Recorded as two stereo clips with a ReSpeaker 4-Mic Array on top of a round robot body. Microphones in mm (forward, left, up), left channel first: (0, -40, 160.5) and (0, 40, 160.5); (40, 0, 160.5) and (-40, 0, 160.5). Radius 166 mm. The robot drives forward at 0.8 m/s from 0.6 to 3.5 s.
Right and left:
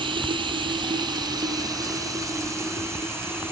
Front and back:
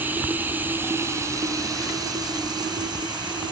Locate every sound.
0.0 s running water: 110° left, 1.7 m; by 3.5 s 150° left, 3.5 m